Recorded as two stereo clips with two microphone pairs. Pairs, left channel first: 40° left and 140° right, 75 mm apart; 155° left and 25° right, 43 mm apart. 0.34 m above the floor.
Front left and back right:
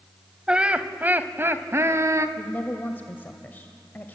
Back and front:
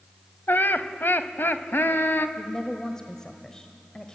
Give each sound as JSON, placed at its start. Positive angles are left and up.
{"t": 0.5, "sound": "laughter", "azimuth_deg": 145, "distance_m": 1.4}
{"t": 2.4, "sound": "a woman speaking", "azimuth_deg": 90, "distance_m": 1.3}